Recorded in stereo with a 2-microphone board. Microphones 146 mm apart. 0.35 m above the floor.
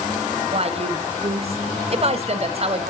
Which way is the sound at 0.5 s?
45° right (ahead or behind).